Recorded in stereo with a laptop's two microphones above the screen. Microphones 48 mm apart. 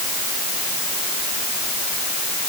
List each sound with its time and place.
Only background noise.